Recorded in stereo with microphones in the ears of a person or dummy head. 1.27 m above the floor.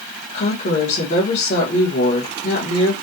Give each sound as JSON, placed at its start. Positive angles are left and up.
{"t": 0.3, "sound": "a woman speaking", "side_deg": 40, "distance_m": 1.4}